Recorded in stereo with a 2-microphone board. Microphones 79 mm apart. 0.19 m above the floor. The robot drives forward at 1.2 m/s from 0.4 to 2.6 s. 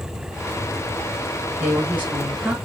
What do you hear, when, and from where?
1.6 s a woman speaking: 20° right (ahead or behind), 1.2 m; by 2.5 s 15° right (ahead or behind), 2 m